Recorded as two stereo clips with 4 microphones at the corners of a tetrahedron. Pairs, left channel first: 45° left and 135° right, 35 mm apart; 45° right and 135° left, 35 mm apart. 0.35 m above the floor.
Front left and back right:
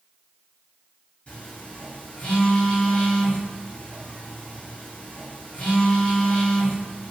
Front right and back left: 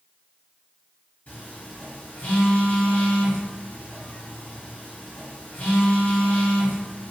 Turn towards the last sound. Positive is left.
turn(degrees=-10)